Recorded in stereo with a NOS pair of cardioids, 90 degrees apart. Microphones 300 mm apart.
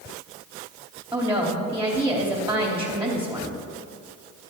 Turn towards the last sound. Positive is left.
turn(degrees=-5)